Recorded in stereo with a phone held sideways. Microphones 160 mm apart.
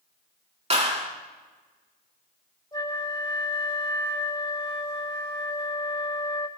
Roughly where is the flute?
Left.